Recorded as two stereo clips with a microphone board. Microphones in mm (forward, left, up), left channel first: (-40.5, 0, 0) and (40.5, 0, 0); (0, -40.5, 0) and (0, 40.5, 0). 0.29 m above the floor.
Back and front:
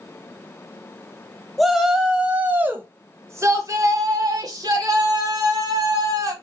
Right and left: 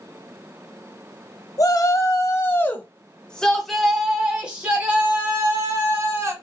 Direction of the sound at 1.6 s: 90° right.